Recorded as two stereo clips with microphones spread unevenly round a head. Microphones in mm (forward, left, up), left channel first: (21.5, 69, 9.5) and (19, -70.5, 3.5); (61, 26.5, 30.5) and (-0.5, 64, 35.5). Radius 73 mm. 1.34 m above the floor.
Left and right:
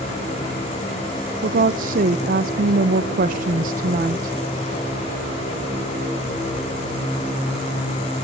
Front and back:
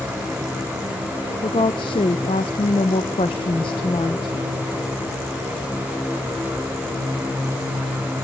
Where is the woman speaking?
60° right, 0.7 m.